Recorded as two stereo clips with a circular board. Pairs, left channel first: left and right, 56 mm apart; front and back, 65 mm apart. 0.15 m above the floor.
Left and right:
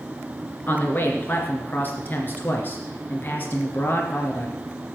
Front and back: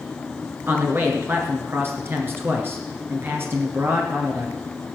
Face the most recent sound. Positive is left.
turn(degrees=135)